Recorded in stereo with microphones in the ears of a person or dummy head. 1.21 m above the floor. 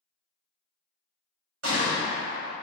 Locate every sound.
1.6 s a gunshot: 70° right (ahead or behind), 1.1 m